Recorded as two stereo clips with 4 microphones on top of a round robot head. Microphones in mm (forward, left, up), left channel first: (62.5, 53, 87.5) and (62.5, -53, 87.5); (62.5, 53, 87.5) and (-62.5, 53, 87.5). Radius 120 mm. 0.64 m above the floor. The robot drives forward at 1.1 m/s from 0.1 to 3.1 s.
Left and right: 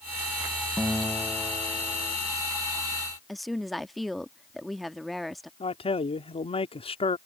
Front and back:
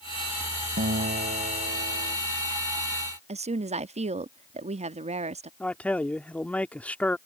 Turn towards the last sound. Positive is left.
turn(degrees=80)